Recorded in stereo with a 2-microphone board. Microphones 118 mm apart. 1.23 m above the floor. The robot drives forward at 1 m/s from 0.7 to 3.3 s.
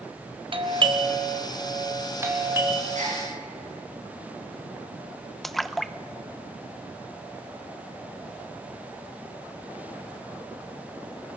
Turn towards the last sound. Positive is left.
turn(degrees=0)  # may be behind; listen again after turning